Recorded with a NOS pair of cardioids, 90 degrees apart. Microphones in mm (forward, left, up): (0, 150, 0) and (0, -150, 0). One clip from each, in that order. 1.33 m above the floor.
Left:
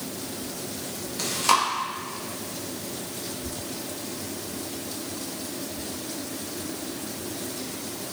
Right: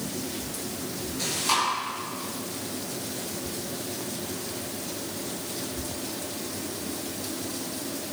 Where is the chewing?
50° left, 1.6 m.